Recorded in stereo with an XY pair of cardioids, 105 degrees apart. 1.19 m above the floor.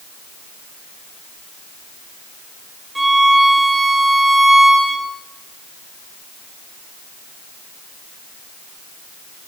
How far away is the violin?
About 4 m.